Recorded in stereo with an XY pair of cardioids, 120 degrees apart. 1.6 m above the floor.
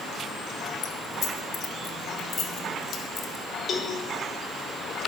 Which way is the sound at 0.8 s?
60° left.